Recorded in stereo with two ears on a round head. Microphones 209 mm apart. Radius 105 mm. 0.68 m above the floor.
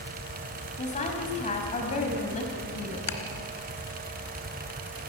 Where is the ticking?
80° left, 2.5 m.